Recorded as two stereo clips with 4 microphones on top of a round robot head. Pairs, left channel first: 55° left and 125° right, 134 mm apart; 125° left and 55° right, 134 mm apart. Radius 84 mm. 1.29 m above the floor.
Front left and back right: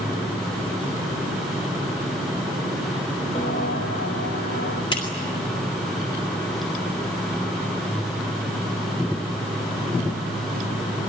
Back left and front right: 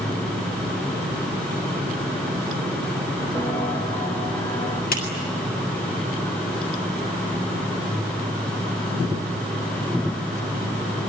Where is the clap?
110° left, 6.5 m.